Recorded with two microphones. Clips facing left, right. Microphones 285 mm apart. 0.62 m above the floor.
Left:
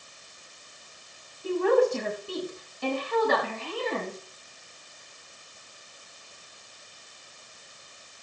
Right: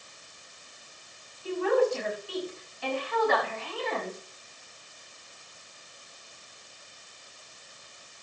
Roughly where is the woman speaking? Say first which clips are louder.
Left 3 dB; left.